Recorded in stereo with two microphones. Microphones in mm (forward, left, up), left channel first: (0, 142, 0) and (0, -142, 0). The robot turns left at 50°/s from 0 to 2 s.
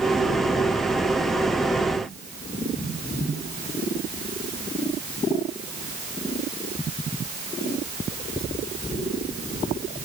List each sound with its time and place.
Only background noise.